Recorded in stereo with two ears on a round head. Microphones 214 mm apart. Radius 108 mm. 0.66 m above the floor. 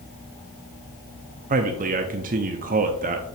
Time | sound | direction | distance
1.5 | a man speaking | 35° right (ahead or behind) | 0.5 m